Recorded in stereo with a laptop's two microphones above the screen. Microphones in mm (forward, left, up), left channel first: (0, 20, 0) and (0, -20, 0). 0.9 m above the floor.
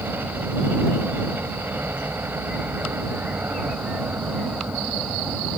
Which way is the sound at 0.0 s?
75° right (ahead or behind).